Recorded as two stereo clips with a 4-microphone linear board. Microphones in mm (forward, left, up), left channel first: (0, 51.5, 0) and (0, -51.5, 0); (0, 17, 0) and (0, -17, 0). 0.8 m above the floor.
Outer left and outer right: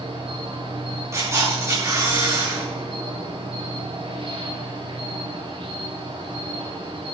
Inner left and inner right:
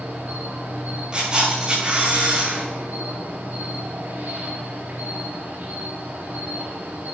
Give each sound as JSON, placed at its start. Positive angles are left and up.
{"t": 0.0, "sound": "an insect", "side_deg": -60, "distance_m": 5.0}
{"t": 1.1, "sound": "a camera shutter", "side_deg": -30, "distance_m": 7.5}